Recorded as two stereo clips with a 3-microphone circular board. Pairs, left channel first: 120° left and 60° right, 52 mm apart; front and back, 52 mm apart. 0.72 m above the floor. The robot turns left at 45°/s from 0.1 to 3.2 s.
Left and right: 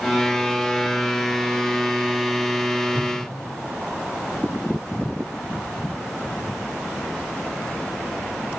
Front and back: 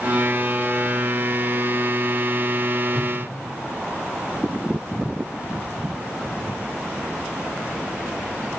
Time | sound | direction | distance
2.9 | a whoosh | 95° right | 2.5 m